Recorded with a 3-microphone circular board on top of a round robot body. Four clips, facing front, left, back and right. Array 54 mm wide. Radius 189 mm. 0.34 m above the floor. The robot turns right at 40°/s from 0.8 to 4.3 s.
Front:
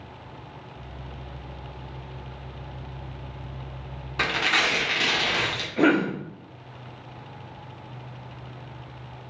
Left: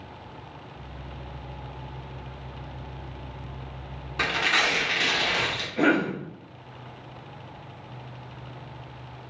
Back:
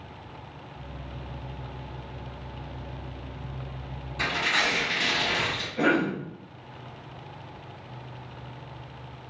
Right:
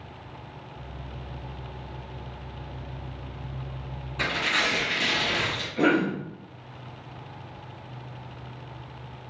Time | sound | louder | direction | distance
4.2 | tearing paper | left 2 dB, front 2 dB | 25° left | 1.2 m
5.8 | a cough | even, front 3 dB | 15° left | 0.9 m